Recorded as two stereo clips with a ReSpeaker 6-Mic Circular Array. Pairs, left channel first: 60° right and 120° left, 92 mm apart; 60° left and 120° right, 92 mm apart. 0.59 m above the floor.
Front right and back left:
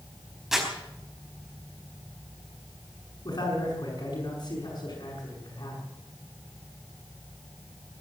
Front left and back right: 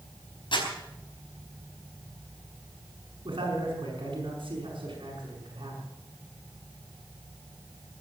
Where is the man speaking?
90° right, 5 m.